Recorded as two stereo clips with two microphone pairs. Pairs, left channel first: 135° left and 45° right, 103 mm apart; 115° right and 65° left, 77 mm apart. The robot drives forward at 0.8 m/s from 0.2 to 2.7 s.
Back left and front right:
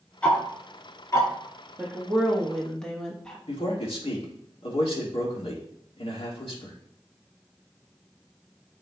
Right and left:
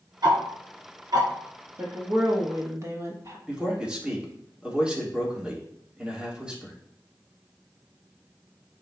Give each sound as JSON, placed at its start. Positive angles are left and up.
{"t": 0.2, "sound": "ticking", "azimuth_deg": 60, "distance_m": 2.0}
{"t": 1.8, "sound": "a woman speaking", "azimuth_deg": 25, "distance_m": 1.5}
{"t": 3.5, "sound": "a man speaking", "azimuth_deg": 140, "distance_m": 2.0}